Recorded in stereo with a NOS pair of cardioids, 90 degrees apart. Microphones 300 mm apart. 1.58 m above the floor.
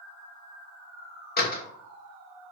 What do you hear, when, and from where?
1.4 s a door slam: 30° left, 1.0 m